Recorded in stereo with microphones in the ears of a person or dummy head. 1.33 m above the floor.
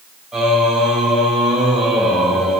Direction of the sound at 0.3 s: Centre (ahead or behind).